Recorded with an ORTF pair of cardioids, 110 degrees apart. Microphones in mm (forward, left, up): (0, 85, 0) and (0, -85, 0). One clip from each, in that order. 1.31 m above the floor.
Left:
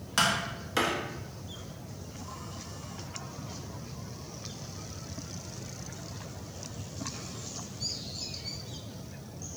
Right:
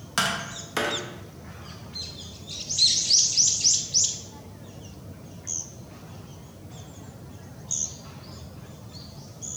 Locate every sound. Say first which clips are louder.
0.2 s tapping: right 1 dB; 10° right, 0.5 m